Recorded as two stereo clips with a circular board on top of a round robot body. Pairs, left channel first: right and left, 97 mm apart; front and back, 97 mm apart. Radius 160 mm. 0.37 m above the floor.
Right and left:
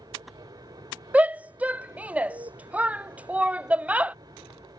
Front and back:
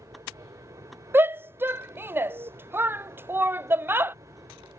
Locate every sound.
0.0 s an aircraft: 125° left
1.1 s a shout: 145° left